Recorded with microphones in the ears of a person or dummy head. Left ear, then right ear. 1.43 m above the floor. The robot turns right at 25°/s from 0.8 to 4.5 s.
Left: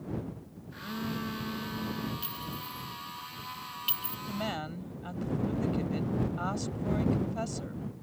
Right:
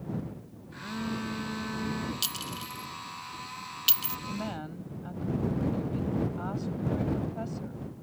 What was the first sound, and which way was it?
A phone buzzing, 160° left.